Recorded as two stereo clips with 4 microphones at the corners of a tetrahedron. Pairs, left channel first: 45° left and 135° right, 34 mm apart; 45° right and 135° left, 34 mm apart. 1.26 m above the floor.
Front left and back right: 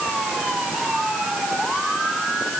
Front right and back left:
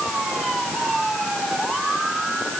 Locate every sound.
Only background noise.